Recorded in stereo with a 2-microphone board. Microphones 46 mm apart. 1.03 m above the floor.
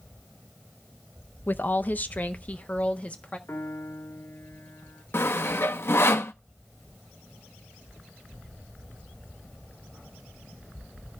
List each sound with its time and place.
1.5 s a woman speaking: 45° left (ahead or behind), 0.5 m; by 3.4 s 30° left (ahead or behind), 1.5 m
3.5 s a piano: 70° left (ahead or behind), 1.8 m
5.1 s sawing: 60° left (ahead or behind), 0.6 m